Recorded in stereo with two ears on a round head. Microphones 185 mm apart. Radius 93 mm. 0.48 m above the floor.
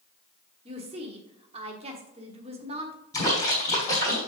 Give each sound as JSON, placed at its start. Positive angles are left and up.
{"t": 0.7, "sound": "a woman speaking", "side_deg": -30, "distance_m": 1.3}
{"t": 3.1, "sound": "a splash", "side_deg": 20, "distance_m": 3.5}